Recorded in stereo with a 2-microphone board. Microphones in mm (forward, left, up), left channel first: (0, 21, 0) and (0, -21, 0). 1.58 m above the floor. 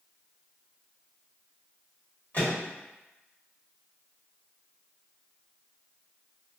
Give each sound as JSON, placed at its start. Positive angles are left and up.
{"t": 2.3, "sound": "a microwave", "side_deg": 40, "distance_m": 1.4}